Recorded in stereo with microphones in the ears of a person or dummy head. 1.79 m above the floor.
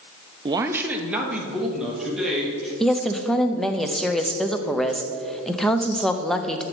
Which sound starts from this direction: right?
A man speaking, at 0.5 s.